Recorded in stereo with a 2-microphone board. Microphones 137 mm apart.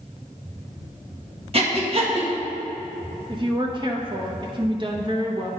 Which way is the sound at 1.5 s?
45° right (ahead or behind).